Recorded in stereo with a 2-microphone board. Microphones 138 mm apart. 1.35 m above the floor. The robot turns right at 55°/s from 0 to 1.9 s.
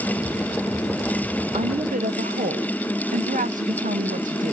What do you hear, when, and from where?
1.5 s a woman speaking: 55° right (ahead or behind), 1.1 m; by 4.5 s 75° right (ahead or behind), 1.1 m